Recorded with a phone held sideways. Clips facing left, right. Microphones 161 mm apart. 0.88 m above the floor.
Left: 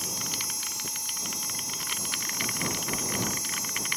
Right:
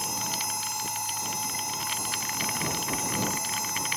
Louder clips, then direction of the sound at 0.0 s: Right 5 dB; 65° right (ahead or behind).